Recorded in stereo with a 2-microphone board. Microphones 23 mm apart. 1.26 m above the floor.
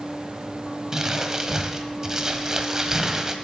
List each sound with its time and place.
0.9 s crumpling: 20° right (ahead or behind), 1.2 m